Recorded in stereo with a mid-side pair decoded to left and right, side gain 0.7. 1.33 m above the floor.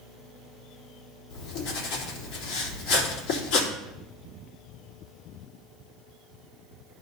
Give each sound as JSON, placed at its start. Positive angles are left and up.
{"t": 1.3, "sound": "writing", "azimuth_deg": 65, "distance_m": 3.5}